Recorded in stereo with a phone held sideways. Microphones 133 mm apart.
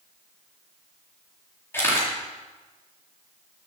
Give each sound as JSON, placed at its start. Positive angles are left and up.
{"t": 1.7, "sound": "a camera shutter", "side_deg": 15, "distance_m": 4.0}